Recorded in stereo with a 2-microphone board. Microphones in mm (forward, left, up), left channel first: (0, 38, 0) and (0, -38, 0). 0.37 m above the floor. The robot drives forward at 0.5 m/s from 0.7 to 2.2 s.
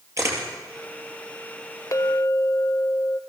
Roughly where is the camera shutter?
Right.